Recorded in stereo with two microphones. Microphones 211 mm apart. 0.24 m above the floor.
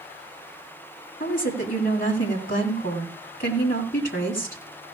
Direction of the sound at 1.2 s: 45° left (ahead or behind).